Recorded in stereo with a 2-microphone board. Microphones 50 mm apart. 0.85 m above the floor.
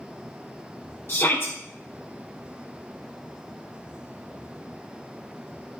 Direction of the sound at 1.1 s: 50° left (ahead or behind).